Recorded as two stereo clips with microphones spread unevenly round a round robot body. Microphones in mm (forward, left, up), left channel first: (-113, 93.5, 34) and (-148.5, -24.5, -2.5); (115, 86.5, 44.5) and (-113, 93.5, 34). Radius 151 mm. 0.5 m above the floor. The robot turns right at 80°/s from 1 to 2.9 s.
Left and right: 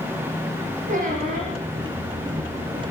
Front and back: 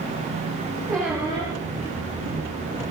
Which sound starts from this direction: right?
A squeak, at 0.9 s.